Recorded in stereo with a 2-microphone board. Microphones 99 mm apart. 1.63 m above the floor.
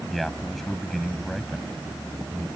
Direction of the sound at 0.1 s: 5° left (ahead or behind).